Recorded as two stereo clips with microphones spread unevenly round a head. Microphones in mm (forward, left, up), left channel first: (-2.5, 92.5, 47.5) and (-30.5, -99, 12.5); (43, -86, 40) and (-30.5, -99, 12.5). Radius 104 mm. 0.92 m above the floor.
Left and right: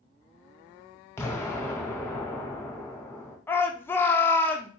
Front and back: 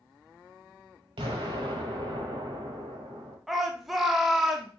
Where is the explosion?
150° left, 0.8 m.